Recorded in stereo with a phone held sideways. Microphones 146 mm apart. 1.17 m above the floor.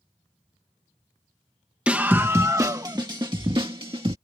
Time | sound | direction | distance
1.9 | a scream | 10° right (ahead or behind) | ?